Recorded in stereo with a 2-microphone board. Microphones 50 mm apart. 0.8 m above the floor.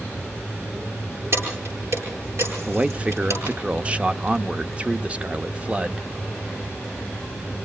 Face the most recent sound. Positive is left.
turn(degrees=-25)  # may be behind; listen again after turning